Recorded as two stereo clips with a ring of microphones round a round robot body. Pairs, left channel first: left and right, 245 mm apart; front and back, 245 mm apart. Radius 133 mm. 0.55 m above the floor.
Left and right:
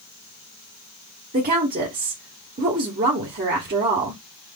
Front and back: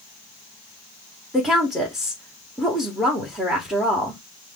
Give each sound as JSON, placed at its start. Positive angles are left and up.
{"t": 1.3, "sound": "a woman speaking", "azimuth_deg": -90, "distance_m": 0.8}